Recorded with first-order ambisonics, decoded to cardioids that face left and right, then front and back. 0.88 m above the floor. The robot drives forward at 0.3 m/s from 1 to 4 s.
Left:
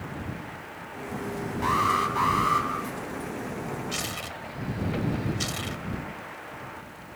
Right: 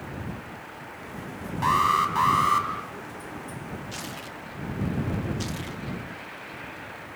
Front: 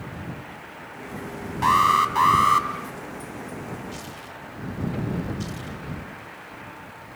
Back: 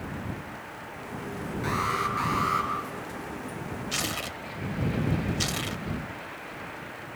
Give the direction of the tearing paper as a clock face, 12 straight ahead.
6 o'clock.